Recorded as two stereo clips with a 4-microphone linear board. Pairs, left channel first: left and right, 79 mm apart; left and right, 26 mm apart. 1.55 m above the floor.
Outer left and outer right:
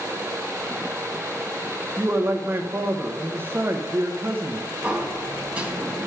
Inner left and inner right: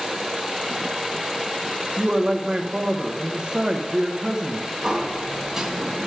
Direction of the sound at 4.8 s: 15° right (ahead or behind).